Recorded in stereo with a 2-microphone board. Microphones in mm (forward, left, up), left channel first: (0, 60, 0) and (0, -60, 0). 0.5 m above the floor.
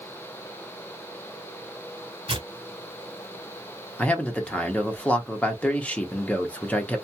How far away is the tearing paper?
About 0.9 m.